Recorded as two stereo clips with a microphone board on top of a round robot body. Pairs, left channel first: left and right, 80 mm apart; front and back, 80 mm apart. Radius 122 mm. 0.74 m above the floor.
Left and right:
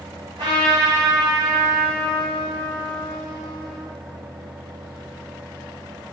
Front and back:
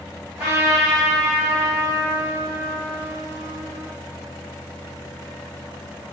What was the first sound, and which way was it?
A trumpet, 110° right.